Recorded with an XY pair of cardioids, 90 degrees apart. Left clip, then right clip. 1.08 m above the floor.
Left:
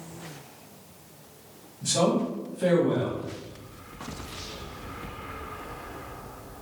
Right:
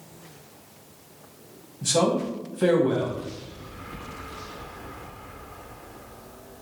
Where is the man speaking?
55° right, 1.3 m.